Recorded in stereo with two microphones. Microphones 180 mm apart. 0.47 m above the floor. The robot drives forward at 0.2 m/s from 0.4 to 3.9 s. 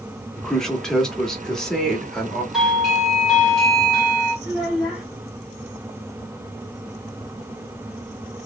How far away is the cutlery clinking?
I don't hear cutlery clinking.